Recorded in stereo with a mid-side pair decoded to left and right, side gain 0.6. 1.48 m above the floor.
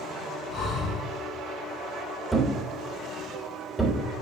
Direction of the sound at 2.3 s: 5° right.